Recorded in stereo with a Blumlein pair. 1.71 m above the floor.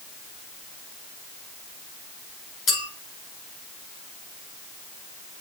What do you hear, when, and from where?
2.7 s a clink: 30° left, 5.5 m